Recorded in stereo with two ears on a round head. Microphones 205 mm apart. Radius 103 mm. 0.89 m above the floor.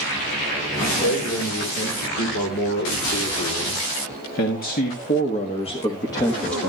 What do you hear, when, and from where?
0.8 s a man speaking: 60° left (ahead or behind), 4 m; by 6.7 s centre (ahead or behind), 1.1 m